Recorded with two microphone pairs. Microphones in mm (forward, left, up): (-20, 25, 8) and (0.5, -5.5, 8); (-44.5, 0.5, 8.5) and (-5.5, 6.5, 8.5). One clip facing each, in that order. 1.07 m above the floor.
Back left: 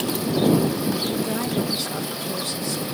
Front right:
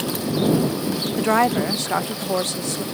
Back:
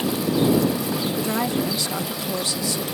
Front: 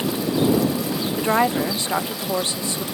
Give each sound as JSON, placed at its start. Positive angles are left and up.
{"t": 1.2, "sound": "a woman speaking", "azimuth_deg": -40}